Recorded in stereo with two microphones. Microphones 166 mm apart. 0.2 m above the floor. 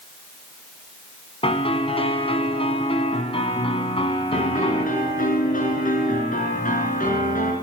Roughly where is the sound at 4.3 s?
Left.